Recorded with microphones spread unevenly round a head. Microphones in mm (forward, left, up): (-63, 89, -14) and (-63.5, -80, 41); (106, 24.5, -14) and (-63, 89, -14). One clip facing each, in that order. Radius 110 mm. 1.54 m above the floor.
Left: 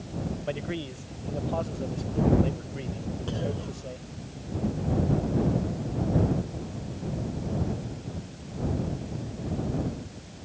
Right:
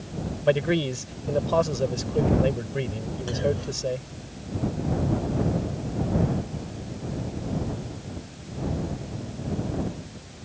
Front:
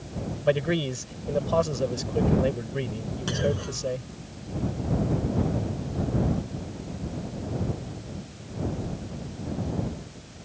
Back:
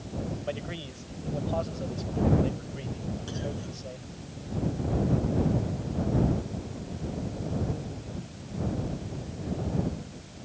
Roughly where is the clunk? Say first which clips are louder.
Right 8 dB, front 8 dB; ahead.